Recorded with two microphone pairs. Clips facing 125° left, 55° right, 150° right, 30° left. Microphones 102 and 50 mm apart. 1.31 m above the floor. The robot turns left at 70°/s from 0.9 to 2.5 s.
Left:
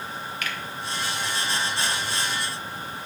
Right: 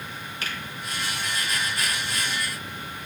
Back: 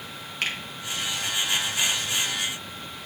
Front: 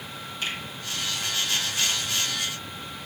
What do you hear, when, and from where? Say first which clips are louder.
0.4 s a finger snap: even, back 3 dB; 115° right, 1.4 m